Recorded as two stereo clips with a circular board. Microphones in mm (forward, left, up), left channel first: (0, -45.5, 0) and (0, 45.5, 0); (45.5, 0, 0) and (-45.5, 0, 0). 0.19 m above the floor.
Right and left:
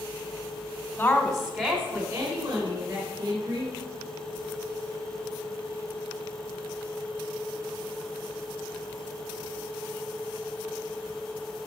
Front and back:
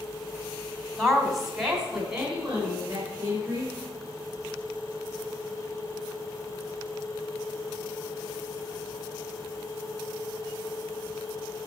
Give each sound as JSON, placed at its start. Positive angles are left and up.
{"t": 1.0, "sound": "a woman speaking", "azimuth_deg": -80, "distance_m": 1.2}